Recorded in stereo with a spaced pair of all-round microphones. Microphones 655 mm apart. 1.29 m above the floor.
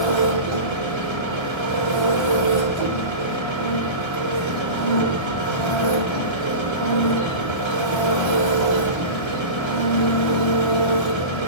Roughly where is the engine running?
Right.